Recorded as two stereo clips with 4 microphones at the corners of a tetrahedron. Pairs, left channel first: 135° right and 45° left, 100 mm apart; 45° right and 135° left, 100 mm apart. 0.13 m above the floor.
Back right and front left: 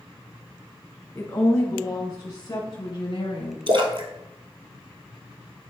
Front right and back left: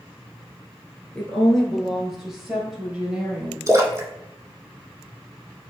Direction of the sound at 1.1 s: 115° right.